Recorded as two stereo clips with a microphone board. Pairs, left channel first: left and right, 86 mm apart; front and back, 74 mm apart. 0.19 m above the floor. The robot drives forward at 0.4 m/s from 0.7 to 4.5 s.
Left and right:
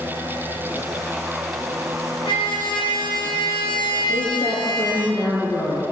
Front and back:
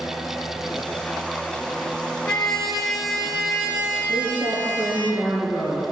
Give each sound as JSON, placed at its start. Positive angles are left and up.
{"t": 2.2, "sound": "a trumpet", "azimuth_deg": 85, "distance_m": 1.7}
{"t": 4.1, "sound": "a woman speaking", "azimuth_deg": 110, "distance_m": 2.5}